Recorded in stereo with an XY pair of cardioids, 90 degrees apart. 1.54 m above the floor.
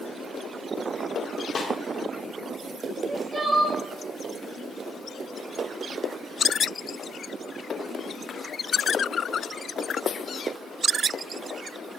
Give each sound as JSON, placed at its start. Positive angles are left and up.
{"t": 1.6, "sound": "a snare drum", "azimuth_deg": 50, "distance_m": 3.0}
{"t": 3.0, "sound": "crying", "azimuth_deg": -35, "distance_m": 4.0}